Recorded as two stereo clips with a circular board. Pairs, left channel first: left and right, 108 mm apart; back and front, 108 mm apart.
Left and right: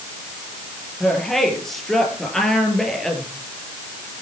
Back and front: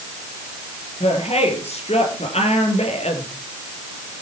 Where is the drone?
No drone in this recording.